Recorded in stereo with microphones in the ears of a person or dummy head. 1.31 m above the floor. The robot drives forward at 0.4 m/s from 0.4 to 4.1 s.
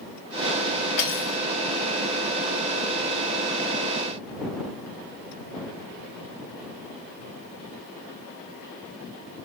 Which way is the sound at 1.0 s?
65° left (ahead or behind).